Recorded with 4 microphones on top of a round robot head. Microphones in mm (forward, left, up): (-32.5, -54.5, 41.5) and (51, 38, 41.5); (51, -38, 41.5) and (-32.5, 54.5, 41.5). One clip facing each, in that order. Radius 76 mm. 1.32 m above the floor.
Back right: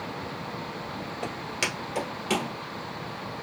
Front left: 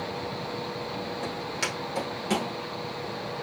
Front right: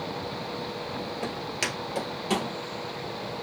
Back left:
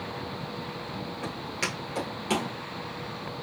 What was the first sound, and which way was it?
Footsteps, 60° right.